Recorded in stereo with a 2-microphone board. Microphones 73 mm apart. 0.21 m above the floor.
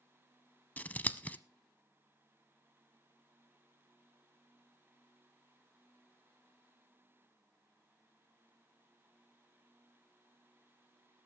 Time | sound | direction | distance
0.8 | scissors | 25° left (ahead or behind) | 0.6 m